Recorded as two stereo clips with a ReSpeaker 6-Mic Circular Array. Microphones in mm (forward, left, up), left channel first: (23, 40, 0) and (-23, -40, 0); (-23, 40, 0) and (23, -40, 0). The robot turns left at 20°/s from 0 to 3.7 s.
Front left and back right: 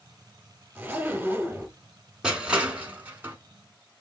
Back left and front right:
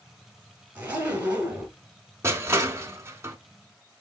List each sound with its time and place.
0.8 s a zipper: 85° right, 1.8 m; by 1.8 s 105° right, 1.8 m
2.2 s crushing: 45° right, 0.8 m; by 3.4 s 70° right, 0.8 m